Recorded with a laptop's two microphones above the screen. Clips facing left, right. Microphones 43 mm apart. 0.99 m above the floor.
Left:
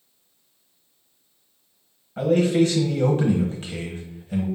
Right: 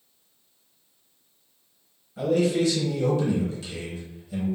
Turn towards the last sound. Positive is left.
turn(degrees=45)  # may be behind; listen again after turning